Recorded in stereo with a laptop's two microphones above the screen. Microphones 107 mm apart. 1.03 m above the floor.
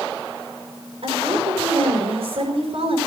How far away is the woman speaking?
About 4.5 m.